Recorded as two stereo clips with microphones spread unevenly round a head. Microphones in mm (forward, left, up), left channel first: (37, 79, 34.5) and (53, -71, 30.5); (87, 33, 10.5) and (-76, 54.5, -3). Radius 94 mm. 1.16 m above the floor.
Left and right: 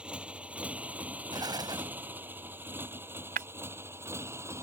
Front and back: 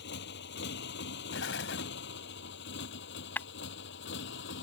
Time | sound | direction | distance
0.0 | a motorcycle | straight ahead | ?
1.3 | an explosion | 20° right | ?
3.4 | breaking glass | 80° right | ?